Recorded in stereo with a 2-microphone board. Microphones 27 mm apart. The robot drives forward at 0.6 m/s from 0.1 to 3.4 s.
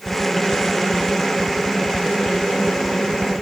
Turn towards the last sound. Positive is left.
No sound to turn to.